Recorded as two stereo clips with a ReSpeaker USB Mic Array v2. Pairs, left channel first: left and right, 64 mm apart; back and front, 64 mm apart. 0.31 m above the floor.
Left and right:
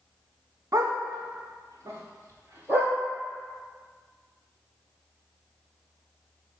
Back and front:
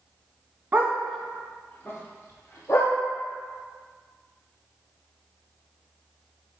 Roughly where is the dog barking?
Ahead right.